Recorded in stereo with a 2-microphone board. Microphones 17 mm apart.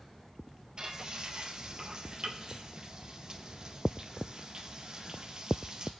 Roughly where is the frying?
Right.